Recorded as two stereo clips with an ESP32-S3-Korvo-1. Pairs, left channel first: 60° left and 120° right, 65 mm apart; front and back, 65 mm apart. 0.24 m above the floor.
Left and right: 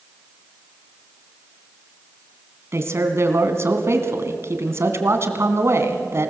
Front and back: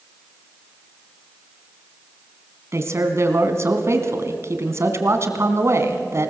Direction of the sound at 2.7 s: 150° right.